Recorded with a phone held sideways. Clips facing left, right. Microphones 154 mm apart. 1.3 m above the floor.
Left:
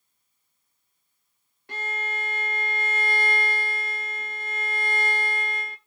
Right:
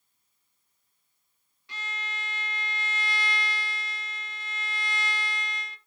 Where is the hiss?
I don't hear a hiss.